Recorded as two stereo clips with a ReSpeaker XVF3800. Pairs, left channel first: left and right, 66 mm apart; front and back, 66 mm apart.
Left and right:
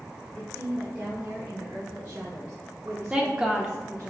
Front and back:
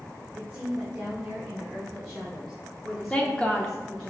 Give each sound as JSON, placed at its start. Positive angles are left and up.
{"t": 0.3, "sound": "a woman speaking", "azimuth_deg": -125, "distance_m": 1.1}
{"t": 3.1, "sound": "a woman speaking", "azimuth_deg": -45, "distance_m": 0.7}